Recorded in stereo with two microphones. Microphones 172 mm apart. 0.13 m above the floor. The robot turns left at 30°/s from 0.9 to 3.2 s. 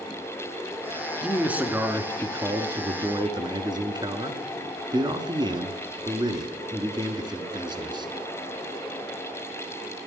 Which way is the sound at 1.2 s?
5° right (ahead or behind).